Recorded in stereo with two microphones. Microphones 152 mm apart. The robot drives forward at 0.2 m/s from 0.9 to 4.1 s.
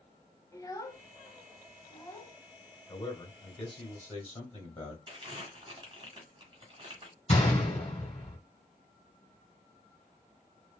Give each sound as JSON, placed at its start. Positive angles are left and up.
{"t": 0.5, "sound": "a child speaking", "side_deg": 25, "distance_m": 0.6}
{"t": 2.9, "sound": "a man speaking", "side_deg": 40, "distance_m": 1.7}
{"t": 5.1, "sound": "crumpling", "side_deg": -30, "distance_m": 1.6}
{"t": 7.3, "sound": "a gunshot", "side_deg": 45, "distance_m": 2.5}